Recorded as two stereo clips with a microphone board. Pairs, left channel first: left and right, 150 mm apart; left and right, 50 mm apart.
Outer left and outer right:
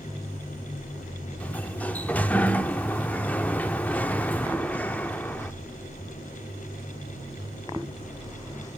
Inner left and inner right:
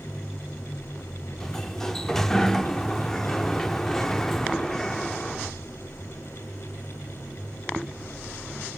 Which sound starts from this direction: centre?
A sliding door, at 1.4 s.